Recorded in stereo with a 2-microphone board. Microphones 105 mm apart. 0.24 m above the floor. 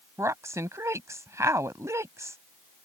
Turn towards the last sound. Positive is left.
turn(degrees=-30)  # may be behind; listen again after turning